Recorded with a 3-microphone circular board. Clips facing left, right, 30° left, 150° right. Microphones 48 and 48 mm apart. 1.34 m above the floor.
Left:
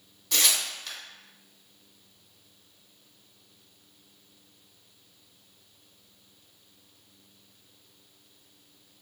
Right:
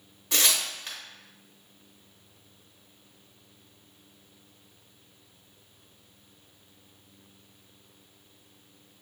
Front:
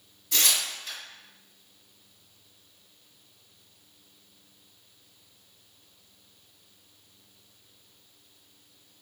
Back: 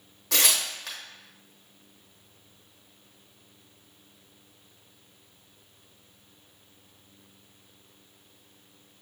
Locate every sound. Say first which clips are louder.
0.3 s tearing paper: right 1 dB, back 2 dB; 155° right, 0.9 m